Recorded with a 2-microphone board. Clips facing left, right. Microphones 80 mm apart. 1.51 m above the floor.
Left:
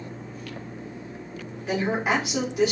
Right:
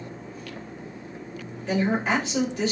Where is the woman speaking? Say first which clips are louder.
Right 1 dB; 10° left (ahead or behind), 1.8 m.